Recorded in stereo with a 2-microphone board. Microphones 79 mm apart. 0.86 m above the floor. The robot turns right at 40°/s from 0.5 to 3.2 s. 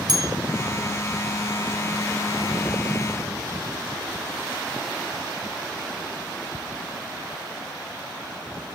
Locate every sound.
0.1 s a bell: 55° right (ahead or behind), 1.3 m